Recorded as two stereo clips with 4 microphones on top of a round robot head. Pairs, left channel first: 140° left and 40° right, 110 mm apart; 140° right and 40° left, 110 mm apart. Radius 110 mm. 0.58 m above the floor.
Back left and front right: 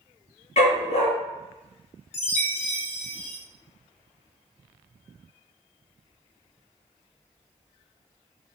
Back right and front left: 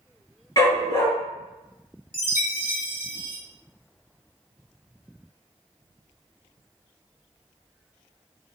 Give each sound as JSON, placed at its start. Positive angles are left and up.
{"t": 0.6, "sound": "a dog barking", "azimuth_deg": 160, "distance_m": 3.5}
{"t": 2.1, "sound": "a chime", "azimuth_deg": 120, "distance_m": 3.5}